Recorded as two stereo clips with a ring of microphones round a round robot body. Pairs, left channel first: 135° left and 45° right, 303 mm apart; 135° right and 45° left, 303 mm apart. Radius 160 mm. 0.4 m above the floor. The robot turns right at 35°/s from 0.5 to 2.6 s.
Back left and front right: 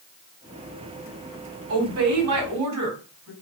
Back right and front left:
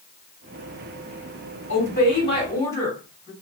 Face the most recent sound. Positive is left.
turn(degrees=-55)